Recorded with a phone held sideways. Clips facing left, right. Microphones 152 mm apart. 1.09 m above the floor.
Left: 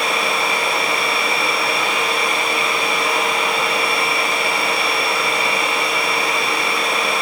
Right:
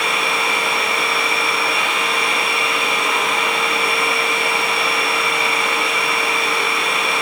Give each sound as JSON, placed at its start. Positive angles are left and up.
{"t": 0.0, "sound": "a machine running", "side_deg": 40, "distance_m": 4.5}